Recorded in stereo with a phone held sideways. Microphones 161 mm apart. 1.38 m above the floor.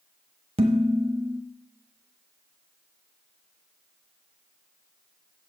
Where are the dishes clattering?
40° right (ahead or behind), 1.2 m.